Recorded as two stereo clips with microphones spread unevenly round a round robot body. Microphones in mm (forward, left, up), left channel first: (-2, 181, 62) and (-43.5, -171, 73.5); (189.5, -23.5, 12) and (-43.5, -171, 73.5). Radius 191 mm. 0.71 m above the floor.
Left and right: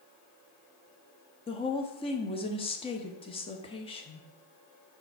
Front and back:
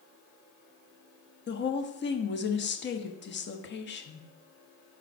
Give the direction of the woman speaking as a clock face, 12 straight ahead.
12 o'clock.